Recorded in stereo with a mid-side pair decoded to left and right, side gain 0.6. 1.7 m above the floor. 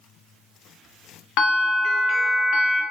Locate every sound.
1.4 s a bell: 70° left, 0.6 m